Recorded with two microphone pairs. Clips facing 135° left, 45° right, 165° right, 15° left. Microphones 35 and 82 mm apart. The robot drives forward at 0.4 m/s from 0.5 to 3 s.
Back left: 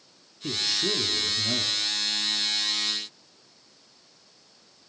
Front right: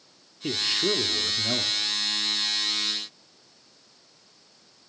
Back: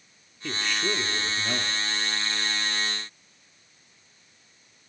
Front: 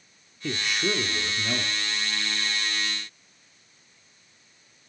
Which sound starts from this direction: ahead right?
A man speaking, at 0.4 s.